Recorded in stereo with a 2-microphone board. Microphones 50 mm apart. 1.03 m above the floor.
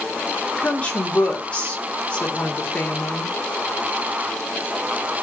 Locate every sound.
0.6 s a woman speaking: 25° left (ahead or behind), 3 m